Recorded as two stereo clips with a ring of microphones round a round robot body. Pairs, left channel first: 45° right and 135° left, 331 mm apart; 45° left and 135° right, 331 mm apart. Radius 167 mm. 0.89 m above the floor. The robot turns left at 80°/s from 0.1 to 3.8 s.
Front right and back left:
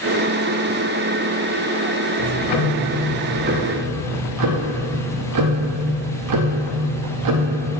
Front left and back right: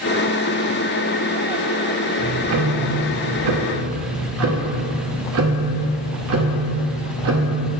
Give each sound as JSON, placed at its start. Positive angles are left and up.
{"t": 2.2, "sound": "ticking", "azimuth_deg": -55, "distance_m": 0.7}